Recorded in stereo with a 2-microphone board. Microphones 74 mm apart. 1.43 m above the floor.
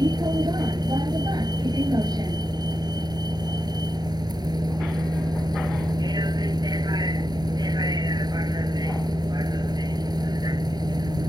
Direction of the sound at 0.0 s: 70° right (ahead or behind).